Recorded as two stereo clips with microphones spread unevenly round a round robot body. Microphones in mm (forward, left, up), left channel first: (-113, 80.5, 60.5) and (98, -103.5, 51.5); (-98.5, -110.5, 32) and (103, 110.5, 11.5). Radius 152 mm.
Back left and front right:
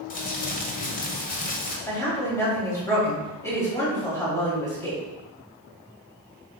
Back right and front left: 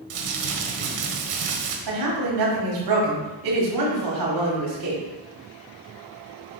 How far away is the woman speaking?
About 4 m.